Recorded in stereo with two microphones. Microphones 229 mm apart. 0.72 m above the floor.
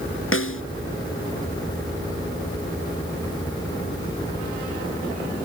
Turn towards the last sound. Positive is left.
turn(degrees=65)  # may be behind; listen again after turning